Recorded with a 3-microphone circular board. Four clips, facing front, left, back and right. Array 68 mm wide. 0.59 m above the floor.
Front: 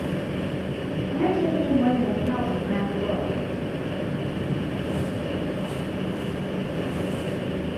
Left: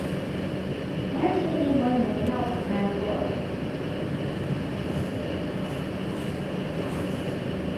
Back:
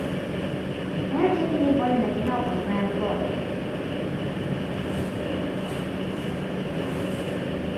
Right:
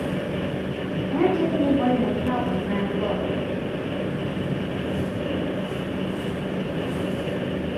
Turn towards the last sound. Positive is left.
turn(degrees=-155)